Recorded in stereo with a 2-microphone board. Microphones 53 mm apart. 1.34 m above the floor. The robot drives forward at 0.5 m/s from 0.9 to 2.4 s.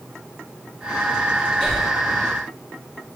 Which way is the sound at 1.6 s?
5° left (ahead or behind).